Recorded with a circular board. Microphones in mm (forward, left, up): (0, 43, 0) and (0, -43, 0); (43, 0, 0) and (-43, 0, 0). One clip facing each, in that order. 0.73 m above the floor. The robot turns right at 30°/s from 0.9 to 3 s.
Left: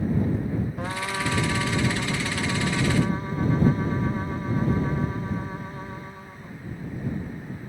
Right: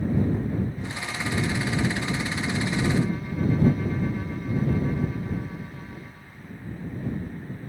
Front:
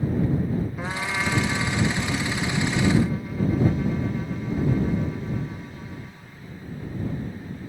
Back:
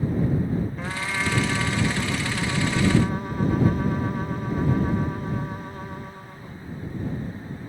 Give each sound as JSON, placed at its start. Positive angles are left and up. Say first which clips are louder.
{"t": 0.8, "sound": "a trumpet", "louder": "left 4 dB, front 1 dB", "azimuth_deg": 80}